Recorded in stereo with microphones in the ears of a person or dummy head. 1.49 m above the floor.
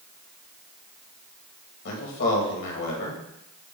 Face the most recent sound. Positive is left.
turn(degrees=65)  # may be behind; listen again after turning